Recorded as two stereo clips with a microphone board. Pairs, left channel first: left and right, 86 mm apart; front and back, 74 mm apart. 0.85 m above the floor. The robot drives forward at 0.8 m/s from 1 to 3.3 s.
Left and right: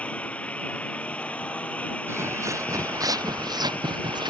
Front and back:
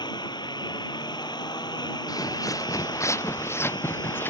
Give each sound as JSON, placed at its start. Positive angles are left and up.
{"t": 0.0, "sound": "a lawn mower", "azimuth_deg": 15}
{"t": 2.1, "sound": "footsteps", "azimuth_deg": -35}